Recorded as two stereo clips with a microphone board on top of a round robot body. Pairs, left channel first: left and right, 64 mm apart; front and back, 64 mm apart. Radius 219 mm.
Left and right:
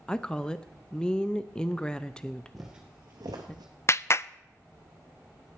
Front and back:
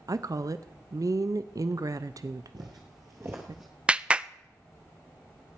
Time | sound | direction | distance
0.1 | a woman speaking | 165° left | 0.7 m
2.5 | footsteps | straight behind | 1.1 m
3.9 | a clap | 110° left | 0.6 m